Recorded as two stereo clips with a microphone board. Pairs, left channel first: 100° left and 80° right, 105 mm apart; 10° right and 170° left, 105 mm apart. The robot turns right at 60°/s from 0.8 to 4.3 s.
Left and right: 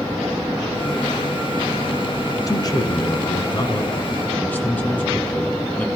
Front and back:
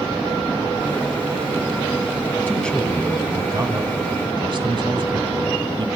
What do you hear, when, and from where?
2.5 s a man speaking: 55° left, 2 m; by 5.9 s 170° left, 2 m